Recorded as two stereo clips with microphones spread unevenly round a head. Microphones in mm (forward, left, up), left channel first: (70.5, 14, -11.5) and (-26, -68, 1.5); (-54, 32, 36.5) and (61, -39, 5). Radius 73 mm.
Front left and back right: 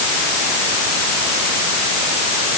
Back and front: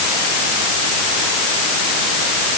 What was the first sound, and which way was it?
Only background noise.